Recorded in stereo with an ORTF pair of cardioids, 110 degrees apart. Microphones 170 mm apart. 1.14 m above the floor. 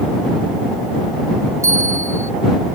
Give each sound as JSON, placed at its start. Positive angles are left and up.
{"t": 1.6, "sound": "a bell", "azimuth_deg": -15}